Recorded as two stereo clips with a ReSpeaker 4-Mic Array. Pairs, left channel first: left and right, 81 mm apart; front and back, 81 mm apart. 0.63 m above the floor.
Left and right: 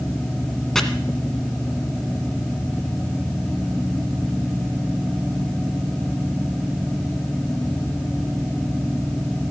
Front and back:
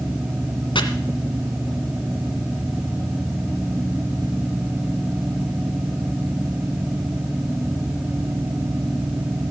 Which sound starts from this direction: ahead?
Chopping, at 0.8 s.